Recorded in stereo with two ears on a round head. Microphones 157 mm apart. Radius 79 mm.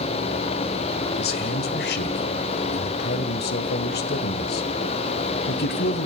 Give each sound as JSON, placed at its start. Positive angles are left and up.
{"t": 1.2, "sound": "a man speaking", "side_deg": 60, "distance_m": 1.7}